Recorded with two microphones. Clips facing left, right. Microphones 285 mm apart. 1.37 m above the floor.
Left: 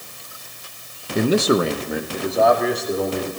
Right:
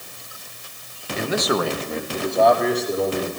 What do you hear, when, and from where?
1.1 s a man speaking: 55° left (ahead or behind), 0.9 m; by 3.3 s 5° right (ahead or behind), 3.5 m